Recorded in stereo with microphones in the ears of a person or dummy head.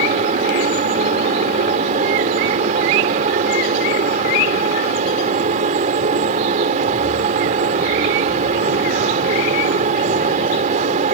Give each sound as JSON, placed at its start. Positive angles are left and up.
{"t": 0.0, "sound": "a fan", "side_deg": -40}